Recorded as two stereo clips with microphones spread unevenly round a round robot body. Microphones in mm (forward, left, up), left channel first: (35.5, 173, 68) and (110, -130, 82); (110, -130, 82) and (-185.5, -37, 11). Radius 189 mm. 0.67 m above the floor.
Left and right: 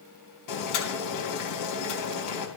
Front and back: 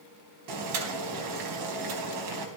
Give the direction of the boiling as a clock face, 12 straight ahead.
7 o'clock.